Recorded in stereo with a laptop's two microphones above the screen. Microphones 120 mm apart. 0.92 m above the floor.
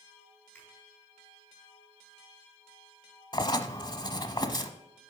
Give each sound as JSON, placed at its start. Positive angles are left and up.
{"t": 0.5, "sound": "a finger snap", "side_deg": 10, "distance_m": 5.0}
{"t": 3.3, "sound": "writing", "side_deg": 40, "distance_m": 0.9}